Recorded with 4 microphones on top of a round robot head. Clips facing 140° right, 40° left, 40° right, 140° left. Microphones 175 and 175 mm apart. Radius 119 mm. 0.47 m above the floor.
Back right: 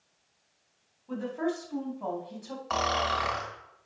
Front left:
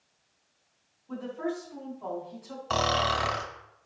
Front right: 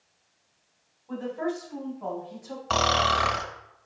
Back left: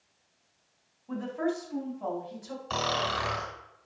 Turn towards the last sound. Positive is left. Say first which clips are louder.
# front left 2 dB, front right 6 dB
turn(degrees=-15)